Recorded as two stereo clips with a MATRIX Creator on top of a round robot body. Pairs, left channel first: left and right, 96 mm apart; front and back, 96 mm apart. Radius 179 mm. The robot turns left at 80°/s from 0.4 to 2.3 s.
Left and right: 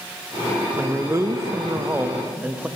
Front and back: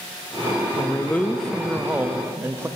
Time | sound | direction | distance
0.8 | a man speaking | 25° right | 0.6 m